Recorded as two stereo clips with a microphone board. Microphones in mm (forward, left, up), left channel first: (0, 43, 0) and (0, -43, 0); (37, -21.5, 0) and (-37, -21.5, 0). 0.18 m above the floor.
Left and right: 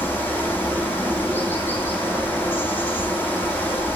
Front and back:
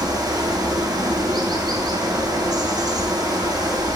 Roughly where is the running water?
Behind left.